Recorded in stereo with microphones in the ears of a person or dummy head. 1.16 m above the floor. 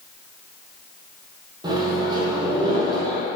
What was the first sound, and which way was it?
A microwave, 20° right (ahead or behind).